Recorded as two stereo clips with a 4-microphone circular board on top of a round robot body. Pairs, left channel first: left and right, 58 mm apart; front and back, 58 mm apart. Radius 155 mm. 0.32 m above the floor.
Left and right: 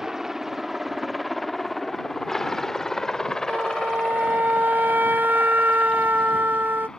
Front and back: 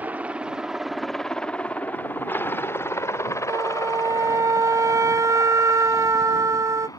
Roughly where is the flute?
Behind right.